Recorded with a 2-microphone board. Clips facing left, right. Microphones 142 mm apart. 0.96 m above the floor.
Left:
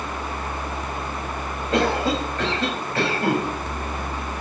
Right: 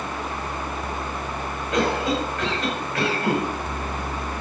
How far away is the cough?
About 6 m.